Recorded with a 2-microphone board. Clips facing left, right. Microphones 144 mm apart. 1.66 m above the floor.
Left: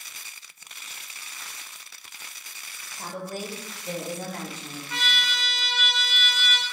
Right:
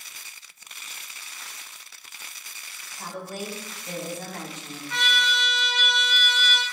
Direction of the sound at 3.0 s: 40° left (ahead or behind).